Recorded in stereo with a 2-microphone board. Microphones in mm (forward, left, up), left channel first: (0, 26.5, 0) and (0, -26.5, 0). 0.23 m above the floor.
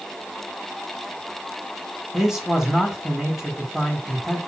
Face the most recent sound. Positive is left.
turn(degrees=-10)  # may be behind; listen again after turning